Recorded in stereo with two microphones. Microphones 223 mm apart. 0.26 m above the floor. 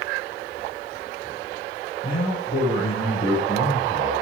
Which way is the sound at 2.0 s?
40° left (ahead or behind).